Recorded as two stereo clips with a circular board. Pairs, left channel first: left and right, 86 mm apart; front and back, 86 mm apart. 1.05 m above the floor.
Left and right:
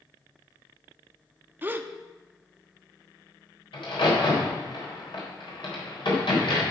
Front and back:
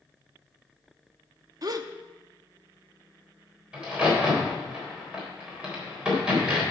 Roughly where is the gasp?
Behind right.